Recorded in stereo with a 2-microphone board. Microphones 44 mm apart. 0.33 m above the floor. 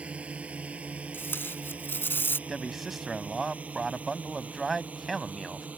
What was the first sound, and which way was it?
A drone, 30° right (ahead or behind).